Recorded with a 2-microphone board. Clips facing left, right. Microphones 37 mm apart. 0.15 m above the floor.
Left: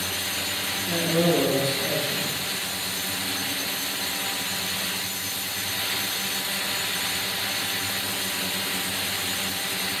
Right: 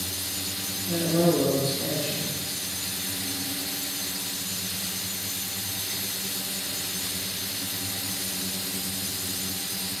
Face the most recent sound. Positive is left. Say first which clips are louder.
# even
turn(degrees=35)  # may be behind; listen again after turning